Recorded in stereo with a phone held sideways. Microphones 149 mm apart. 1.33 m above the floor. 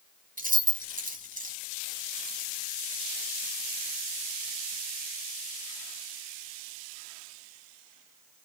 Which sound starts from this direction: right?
Keys jangling, at 0.4 s.